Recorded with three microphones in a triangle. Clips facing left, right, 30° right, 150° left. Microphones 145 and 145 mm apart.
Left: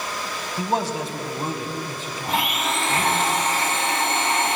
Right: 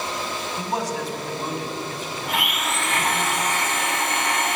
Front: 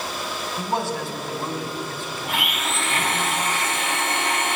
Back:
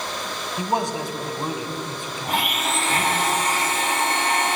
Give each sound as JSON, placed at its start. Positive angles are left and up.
{"t": 0.6, "sound": "a man speaking", "azimuth_deg": 100, "distance_m": 1.1}
{"t": 2.3, "sound": "a blender", "azimuth_deg": 125, "distance_m": 1.7}